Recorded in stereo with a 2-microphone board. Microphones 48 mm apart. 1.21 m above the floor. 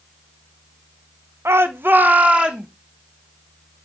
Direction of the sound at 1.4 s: 70° right (ahead or behind).